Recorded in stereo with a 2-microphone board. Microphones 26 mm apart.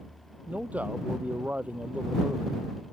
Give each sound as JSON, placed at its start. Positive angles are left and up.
{"t": 0.5, "sound": "a man speaking", "side_deg": -75}